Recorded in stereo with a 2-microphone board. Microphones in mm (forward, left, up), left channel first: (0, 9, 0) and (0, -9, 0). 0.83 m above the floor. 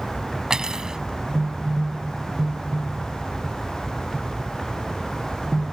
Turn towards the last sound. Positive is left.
turn(degrees=-45)  # may be behind; listen again after turning